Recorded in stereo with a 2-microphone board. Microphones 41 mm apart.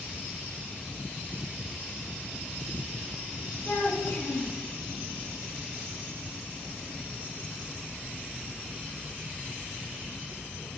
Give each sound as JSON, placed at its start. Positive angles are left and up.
{"t": 3.6, "sound": "a child speaking", "side_deg": 60, "distance_m": 3.0}